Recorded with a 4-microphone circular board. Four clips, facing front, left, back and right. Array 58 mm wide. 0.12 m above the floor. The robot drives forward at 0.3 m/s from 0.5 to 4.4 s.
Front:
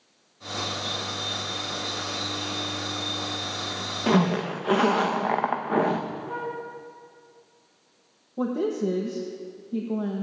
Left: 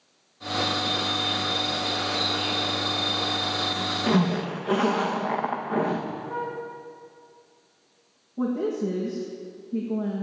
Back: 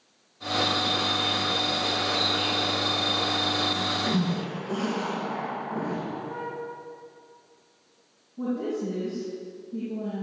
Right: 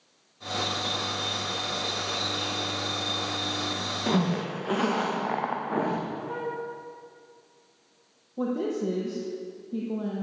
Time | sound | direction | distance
4.1 | a zipper | 5° right | 2.5 m
6.3 | a flute | 55° right | 4 m
8.4 | a woman speaking | 15° right | 5 m